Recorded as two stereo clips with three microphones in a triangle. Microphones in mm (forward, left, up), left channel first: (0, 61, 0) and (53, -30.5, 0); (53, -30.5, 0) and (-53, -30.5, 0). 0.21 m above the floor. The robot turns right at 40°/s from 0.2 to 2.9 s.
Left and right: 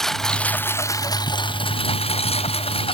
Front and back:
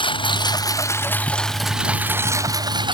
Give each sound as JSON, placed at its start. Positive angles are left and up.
{"t": 0.0, "sound": "a lawn mower", "azimuth_deg": 35}